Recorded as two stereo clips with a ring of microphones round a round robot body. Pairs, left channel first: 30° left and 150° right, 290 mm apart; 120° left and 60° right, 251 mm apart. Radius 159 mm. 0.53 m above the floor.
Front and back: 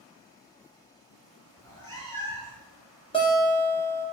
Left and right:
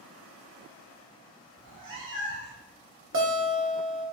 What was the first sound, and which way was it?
A cat meowing, 45° right.